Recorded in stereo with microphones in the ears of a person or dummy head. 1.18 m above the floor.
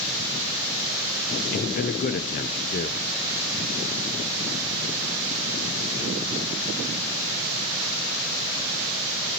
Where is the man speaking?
40° left (ahead or behind), 0.5 m.